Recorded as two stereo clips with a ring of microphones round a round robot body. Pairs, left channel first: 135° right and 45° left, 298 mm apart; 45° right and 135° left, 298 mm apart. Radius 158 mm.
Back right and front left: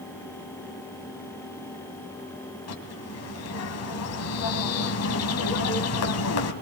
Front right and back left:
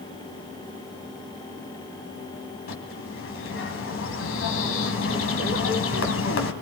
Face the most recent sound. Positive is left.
turn(degrees=-95)